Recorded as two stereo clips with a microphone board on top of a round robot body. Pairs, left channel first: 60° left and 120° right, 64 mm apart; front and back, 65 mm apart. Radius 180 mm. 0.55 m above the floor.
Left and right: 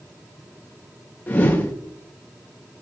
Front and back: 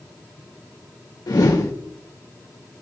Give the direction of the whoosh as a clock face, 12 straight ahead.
12 o'clock.